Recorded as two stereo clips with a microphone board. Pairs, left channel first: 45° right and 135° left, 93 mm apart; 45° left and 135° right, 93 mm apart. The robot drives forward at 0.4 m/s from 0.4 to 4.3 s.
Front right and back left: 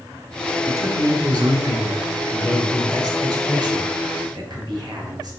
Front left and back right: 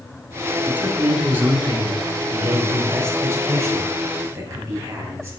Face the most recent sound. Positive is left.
turn(degrees=170)